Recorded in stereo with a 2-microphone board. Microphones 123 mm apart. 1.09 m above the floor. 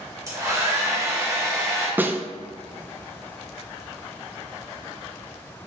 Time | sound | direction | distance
0.3 | a hair dryer | 25° right (ahead or behind) | 2.5 m
2.0 | a snare drum | 15° right (ahead or behind) | 0.5 m